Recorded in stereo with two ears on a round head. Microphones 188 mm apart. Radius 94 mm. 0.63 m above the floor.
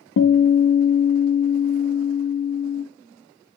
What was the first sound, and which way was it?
A guitar, 55° left (ahead or behind).